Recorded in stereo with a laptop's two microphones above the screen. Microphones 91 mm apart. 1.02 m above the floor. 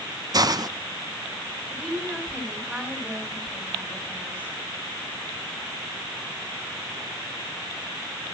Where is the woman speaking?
15° right (ahead or behind), 8.5 m.